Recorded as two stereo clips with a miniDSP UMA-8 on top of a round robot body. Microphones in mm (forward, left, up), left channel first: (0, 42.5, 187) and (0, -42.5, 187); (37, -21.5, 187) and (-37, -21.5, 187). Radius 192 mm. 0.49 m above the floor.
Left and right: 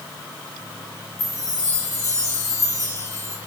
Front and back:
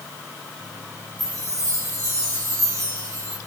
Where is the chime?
140° left, 3.5 m.